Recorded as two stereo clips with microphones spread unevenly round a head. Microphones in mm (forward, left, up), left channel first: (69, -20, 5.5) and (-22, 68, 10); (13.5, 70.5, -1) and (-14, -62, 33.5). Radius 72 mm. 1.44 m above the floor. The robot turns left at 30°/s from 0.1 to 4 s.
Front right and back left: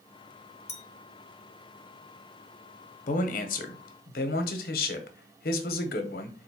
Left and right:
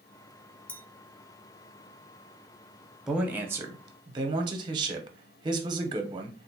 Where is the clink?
10° right, 0.6 m; by 0.8 s 15° right, 0.6 m.